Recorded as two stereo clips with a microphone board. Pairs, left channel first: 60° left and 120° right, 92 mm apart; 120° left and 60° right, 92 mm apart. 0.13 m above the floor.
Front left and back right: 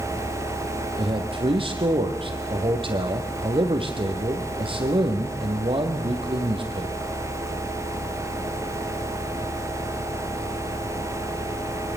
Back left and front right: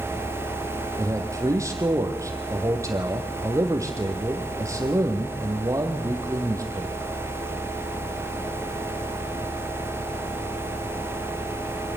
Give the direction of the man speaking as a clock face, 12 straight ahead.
4 o'clock.